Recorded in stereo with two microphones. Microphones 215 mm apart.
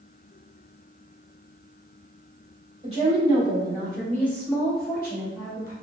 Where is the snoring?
No snoring in this recording.